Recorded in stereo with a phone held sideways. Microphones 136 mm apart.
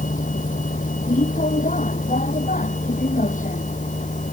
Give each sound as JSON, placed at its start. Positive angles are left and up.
{"t": 0.0, "sound": "a vehicle", "side_deg": 70}